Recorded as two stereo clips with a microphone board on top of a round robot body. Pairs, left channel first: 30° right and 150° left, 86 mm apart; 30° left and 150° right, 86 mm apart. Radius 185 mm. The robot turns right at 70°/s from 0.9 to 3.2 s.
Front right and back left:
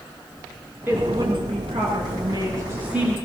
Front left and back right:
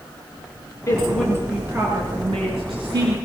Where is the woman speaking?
85° left, 9 m; by 3.2 s 115° right, 9 m.